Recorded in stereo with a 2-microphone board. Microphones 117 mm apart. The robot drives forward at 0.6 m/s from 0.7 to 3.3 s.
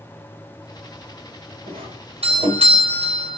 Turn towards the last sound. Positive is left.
turn(degrees=-60)  # may be behind; listen again after turning